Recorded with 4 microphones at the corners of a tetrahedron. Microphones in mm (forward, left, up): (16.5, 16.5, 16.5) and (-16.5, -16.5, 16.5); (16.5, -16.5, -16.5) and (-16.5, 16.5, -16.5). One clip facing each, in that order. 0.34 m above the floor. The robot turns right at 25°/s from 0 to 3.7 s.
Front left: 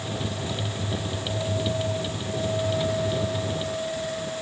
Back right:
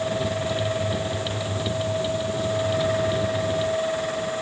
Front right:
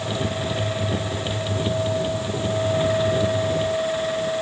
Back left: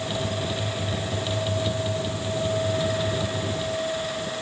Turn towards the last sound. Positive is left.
No sound to turn to.